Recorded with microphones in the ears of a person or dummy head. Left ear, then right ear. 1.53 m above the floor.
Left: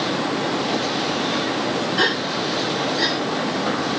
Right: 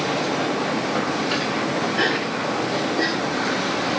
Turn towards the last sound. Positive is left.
turn(degrees=35)  # may be behind; listen again after turning